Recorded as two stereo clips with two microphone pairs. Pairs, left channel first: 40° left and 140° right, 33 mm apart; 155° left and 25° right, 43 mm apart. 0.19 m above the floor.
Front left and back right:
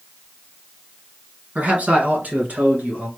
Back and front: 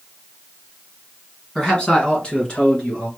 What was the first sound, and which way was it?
A man speaking, 140° right.